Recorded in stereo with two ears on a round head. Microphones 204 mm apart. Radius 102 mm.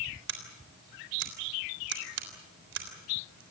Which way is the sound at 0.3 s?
55° right (ahead or behind).